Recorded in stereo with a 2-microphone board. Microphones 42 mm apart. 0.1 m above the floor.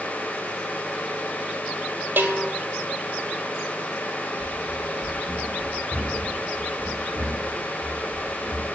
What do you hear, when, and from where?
2.2 s a bell: 55° right (ahead or behind), 1.5 m
4.4 s running footsteps: 90° right, 7.5 m; by 8.7 s 65° right (ahead or behind), 6.5 m